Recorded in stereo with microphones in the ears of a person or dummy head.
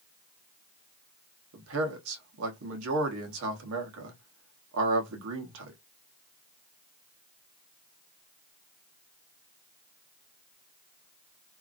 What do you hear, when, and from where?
1.5 s a man speaking: 75° right (ahead or behind), 1.0 m